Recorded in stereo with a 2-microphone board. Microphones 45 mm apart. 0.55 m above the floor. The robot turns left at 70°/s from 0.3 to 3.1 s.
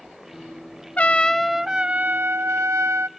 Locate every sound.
1.0 s a trumpet: 40° left, 0.6 m; by 3.1 s 110° right, 0.6 m